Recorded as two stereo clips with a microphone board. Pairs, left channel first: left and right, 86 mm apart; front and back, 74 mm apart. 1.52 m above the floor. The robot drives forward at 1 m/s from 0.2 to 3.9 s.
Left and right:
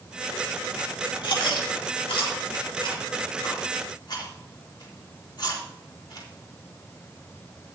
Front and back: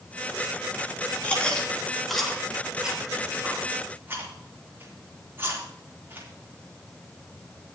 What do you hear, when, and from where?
1.2 s chewing: 70° left, 3 m; by 6.3 s 120° left, 3 m